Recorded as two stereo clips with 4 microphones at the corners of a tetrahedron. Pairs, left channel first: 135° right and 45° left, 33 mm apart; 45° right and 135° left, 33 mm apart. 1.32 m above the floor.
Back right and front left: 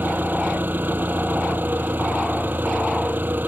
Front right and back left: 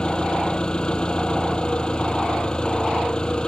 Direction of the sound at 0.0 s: 20° left.